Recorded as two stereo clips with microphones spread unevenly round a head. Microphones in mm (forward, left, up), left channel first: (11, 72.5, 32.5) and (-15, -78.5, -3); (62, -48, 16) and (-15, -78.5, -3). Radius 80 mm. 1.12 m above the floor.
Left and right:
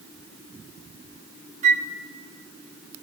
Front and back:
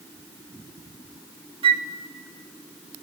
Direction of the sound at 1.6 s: 150° right.